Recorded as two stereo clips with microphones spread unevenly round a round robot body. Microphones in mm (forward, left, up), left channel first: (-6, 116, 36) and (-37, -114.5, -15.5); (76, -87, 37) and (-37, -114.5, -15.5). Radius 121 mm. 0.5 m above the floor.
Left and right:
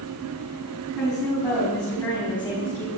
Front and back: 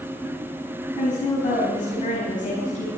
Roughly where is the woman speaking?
Ahead.